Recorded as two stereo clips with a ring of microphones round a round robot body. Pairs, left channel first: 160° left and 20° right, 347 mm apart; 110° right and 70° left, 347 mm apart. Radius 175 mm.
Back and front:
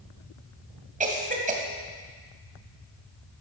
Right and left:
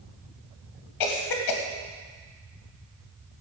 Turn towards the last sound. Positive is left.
turn(degrees=-90)